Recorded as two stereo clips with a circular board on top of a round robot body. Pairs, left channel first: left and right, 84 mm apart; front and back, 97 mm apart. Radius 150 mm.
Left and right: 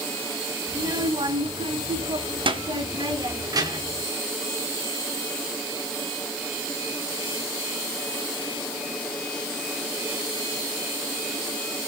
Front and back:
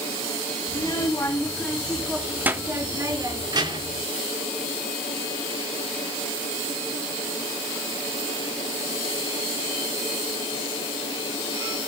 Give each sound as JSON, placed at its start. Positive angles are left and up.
{"t": 0.7, "sound": "a child speaking", "azimuth_deg": -55, "distance_m": 2.5}